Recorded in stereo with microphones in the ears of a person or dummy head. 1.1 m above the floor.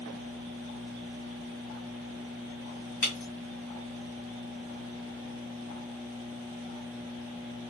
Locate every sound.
3.0 s breaking glass: 45° left (ahead or behind), 2 m